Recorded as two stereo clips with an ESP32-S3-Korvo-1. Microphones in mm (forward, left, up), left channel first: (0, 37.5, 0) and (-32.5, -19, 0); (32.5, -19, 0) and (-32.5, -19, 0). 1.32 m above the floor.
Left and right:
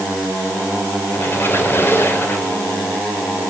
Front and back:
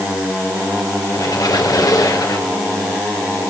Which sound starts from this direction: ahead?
A squeak, at 1.1 s.